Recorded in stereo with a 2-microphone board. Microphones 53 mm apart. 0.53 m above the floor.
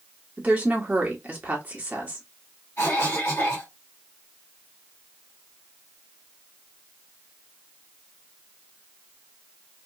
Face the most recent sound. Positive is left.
turn(degrees=50)  # may be behind; listen again after turning